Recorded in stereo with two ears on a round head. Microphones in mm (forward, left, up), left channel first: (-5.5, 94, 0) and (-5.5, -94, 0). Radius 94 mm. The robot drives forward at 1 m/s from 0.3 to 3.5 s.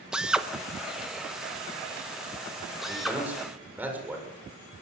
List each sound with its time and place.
0.1 s a drill: 5° right (ahead or behind), 1.2 m; by 3.2 s centre (ahead or behind), 4 m
2.9 s a man speaking: 5° right (ahead or behind), 7.5 m; by 4.2 s 10° right (ahead or behind), 7 m